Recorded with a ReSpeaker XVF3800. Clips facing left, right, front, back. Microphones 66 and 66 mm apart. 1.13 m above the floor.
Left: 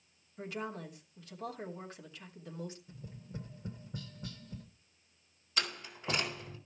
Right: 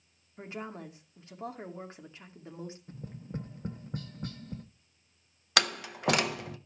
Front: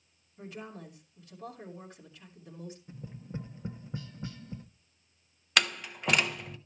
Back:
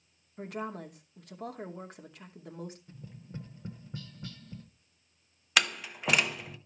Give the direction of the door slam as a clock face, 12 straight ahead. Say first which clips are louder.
Right 9 dB, even; 3 o'clock.